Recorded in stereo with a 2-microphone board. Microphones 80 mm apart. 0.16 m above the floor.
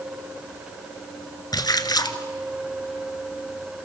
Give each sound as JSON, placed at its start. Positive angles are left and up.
{"t": 1.5, "sound": "a splash", "side_deg": 55, "distance_m": 1.3}